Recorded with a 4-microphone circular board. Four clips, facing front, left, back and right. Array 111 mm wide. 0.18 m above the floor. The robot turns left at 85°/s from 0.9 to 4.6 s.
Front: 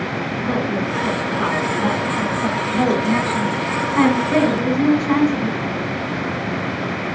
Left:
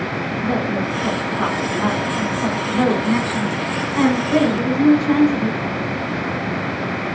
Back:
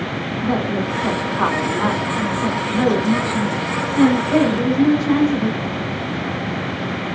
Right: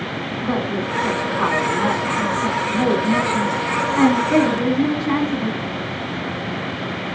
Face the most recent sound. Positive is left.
turn(degrees=-70)